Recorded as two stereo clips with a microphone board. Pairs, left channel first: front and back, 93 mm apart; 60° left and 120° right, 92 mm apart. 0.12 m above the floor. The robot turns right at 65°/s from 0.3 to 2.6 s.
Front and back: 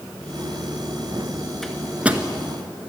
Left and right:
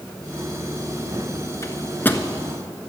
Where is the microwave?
85° left, 1.2 m; by 2.3 s 125° left, 1.2 m.